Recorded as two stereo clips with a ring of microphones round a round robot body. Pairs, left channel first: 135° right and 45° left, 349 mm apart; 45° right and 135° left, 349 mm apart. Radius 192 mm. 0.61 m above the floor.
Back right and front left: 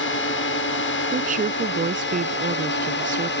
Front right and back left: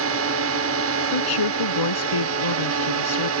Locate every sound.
0.0 s a drone: 175° left
1.1 s a woman speaking: 25° right